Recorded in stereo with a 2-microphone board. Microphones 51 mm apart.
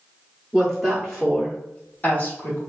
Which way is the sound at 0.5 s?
10° right (ahead or behind).